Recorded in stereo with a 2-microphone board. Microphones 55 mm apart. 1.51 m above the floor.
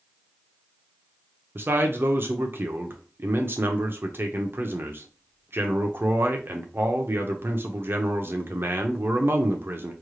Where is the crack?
No crack in this recording.